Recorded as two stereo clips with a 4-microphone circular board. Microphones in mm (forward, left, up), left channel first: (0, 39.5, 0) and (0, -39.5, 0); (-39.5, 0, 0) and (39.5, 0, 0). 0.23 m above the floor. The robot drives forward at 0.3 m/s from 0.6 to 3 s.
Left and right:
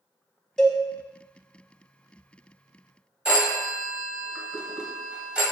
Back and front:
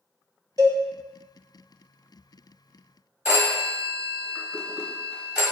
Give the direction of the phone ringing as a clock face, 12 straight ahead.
1 o'clock.